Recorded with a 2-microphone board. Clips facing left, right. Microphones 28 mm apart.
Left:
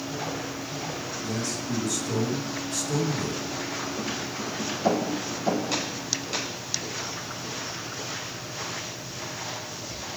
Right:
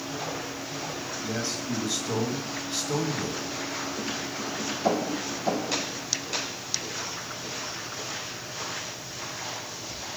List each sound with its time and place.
1.2 s a man speaking: 30° right (ahead or behind), 1.7 m